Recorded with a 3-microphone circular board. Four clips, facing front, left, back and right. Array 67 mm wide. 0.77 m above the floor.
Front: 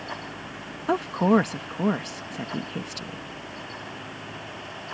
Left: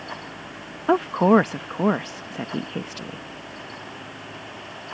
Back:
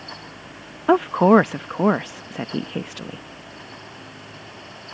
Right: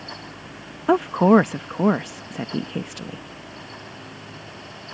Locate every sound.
0.9 s a woman speaking: 175° right